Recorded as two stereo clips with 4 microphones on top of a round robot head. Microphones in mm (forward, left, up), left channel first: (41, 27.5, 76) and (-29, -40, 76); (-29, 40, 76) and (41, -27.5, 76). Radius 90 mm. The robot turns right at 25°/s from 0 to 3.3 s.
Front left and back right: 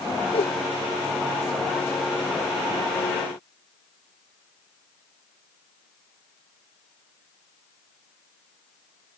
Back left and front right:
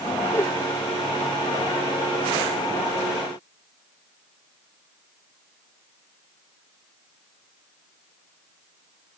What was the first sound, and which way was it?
A whoosh, 70° left.